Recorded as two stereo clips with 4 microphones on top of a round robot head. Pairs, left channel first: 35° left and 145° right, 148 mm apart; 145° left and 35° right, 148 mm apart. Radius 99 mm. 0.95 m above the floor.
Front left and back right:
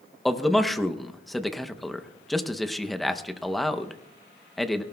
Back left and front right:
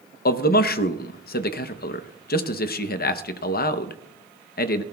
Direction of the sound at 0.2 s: 120° left.